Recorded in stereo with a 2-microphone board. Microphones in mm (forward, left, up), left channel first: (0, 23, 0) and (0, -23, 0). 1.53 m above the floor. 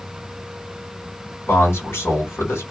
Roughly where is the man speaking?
Left.